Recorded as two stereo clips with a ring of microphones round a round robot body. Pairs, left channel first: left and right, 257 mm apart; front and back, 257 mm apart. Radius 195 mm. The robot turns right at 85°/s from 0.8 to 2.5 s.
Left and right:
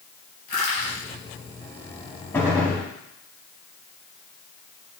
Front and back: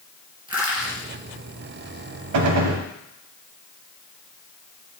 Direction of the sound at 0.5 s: 110° left.